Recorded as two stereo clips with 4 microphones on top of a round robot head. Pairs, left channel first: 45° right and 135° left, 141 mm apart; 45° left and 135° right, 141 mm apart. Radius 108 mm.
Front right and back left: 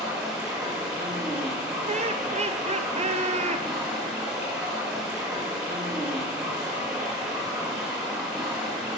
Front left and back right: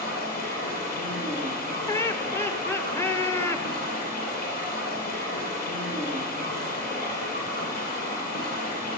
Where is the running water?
50° left, 5 m.